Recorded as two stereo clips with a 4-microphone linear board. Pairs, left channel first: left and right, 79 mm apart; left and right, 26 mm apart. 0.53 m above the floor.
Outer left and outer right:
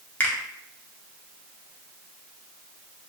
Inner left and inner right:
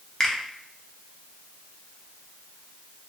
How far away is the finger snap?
About 0.5 m.